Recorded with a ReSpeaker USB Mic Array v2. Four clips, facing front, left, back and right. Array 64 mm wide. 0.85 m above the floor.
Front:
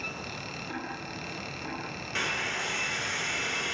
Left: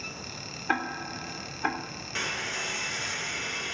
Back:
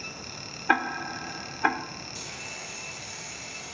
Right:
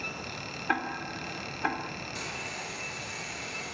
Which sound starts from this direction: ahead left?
A hair dryer, at 2.1 s.